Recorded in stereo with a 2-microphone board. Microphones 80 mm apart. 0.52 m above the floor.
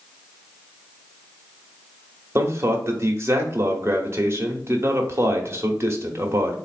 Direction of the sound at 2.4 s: 35° right (ahead or behind).